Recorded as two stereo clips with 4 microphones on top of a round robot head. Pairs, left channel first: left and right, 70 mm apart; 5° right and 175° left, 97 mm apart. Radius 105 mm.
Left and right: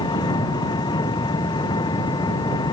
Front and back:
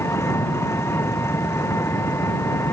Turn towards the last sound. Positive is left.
turn(degrees=60)